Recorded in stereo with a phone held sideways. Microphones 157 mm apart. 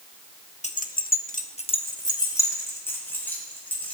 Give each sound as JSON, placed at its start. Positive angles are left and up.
{"t": 0.6, "sound": "keys jangling", "side_deg": 50, "distance_m": 0.7}